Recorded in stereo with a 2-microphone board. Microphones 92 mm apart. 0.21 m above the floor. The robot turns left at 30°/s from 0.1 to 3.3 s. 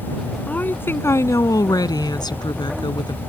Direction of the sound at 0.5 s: 160° left.